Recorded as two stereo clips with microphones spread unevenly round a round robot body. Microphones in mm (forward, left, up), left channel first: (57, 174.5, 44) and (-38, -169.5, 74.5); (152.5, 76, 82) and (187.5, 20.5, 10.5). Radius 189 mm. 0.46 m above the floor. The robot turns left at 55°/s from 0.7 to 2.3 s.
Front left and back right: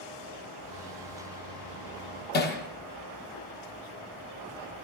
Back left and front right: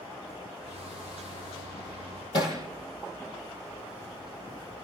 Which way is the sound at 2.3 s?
140° left.